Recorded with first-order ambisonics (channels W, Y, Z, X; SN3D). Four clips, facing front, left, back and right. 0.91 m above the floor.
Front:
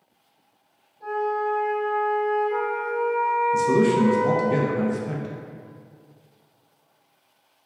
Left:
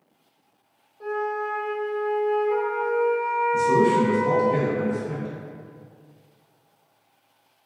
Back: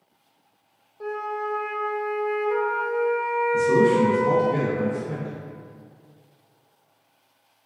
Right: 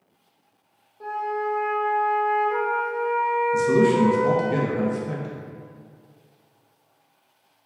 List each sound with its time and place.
1.0 s a flute: 175° right, 0.6 m
3.5 s a man speaking: 30° right, 0.6 m